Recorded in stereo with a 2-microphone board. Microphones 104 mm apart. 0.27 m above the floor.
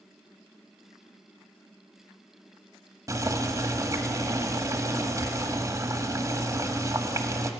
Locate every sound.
3.1 s boiling: 35° right (ahead or behind), 1.6 m